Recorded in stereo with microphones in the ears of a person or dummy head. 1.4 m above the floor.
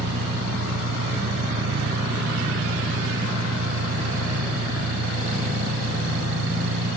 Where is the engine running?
80° right.